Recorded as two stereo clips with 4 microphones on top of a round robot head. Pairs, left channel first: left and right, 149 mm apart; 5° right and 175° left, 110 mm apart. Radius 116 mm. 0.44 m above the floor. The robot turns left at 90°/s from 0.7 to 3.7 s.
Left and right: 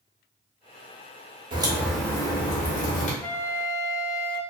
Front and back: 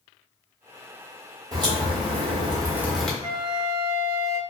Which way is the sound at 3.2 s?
170° left.